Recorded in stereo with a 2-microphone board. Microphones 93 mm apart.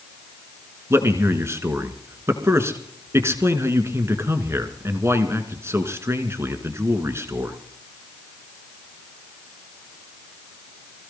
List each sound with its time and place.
0.9 s a man speaking: 30° right (ahead or behind), 2.0 m